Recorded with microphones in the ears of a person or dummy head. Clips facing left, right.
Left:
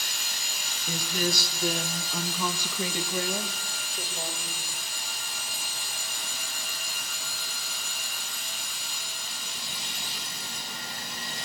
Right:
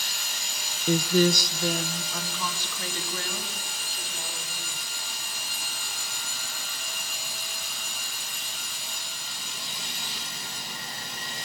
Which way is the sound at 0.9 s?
45° right (ahead or behind).